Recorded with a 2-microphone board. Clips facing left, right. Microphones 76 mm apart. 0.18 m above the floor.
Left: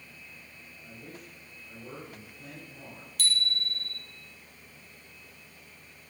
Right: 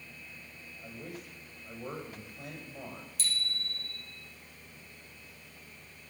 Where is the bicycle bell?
65° left (ahead or behind), 3.5 m.